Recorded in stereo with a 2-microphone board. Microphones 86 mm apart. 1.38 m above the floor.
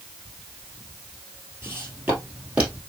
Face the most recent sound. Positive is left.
turn(degrees=-15)  # may be behind; listen again after turning